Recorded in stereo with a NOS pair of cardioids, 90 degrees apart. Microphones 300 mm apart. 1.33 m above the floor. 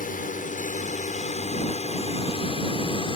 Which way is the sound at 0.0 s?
30° left.